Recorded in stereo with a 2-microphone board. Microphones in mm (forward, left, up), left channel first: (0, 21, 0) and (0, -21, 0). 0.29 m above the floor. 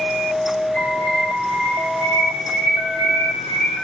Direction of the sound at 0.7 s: 25° left (ahead or behind).